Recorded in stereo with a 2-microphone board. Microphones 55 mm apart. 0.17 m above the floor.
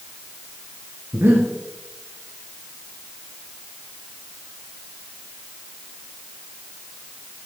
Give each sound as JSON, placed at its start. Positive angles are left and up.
{"t": 1.1, "sound": "breathing", "side_deg": -50, "distance_m": 2.5}